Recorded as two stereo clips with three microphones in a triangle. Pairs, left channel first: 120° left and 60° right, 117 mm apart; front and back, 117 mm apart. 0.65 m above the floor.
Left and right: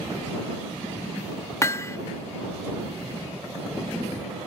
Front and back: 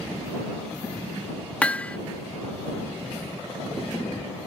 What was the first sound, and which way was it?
Hammering, 70° left.